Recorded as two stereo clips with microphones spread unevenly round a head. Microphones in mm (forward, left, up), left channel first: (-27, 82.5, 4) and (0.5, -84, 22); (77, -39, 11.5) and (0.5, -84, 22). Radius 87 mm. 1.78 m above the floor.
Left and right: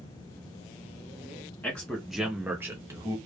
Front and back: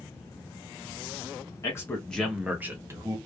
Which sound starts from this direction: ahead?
A man speaking, at 1.6 s.